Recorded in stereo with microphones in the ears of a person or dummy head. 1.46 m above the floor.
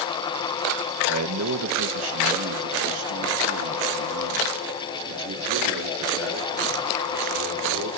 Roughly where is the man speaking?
Right.